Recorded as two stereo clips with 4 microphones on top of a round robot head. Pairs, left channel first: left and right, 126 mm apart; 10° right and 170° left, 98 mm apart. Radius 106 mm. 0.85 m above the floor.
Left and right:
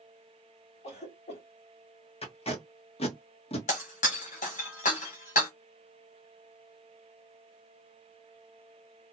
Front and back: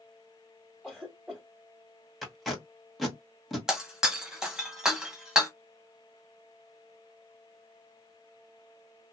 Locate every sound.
0.8 s a cough: 90° left, 1.8 m
2.2 s tape being pulled: 80° left, 1.4 m
3.7 s breaking glass: 90° left, 1.0 m